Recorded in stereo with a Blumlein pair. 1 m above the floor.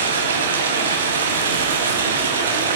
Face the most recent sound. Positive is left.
turn(degrees=-65)